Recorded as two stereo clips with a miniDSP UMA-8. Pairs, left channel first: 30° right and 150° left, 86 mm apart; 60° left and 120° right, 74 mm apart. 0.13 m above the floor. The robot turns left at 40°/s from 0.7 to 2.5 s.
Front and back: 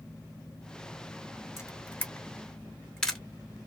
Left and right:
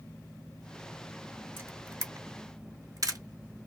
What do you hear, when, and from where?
1.6 s a camera shutter: 70° right, 0.7 m; by 3.2 s 110° right, 0.7 m